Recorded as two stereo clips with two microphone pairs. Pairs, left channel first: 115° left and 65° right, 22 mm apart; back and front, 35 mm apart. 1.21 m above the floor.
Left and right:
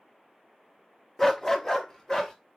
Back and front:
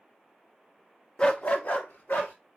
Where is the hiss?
I don't hear a hiss.